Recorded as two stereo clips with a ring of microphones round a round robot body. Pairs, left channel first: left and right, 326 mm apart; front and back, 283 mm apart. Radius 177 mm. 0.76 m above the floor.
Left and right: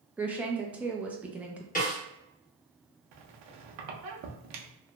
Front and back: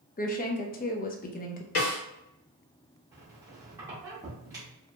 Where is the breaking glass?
No breaking glass in this recording.